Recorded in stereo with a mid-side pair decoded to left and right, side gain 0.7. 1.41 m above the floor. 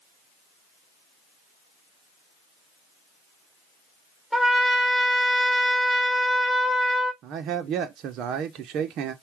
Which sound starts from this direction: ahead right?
A man speaking, at 7.2 s.